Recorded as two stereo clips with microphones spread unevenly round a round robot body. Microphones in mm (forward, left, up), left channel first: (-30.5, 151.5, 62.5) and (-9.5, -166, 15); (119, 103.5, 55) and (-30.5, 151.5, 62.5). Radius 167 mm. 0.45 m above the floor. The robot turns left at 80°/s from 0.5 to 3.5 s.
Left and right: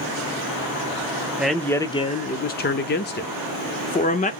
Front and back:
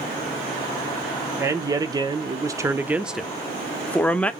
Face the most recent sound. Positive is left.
turn(degrees=45)